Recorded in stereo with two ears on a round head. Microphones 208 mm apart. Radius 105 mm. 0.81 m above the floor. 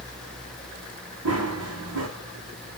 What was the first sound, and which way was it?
Running footsteps, 75° right (ahead or behind).